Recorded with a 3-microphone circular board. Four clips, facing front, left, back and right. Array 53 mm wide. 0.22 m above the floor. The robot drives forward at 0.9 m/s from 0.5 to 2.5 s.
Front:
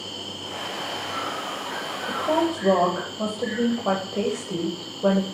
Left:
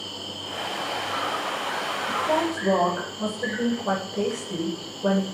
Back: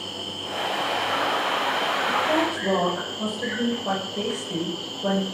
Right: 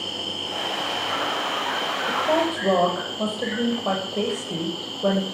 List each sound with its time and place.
0.0 s an insect: 95° right, 3 m; by 5.3 s 125° right, 3.5 m
2.1 s a woman speaking: 50° right, 7.5 m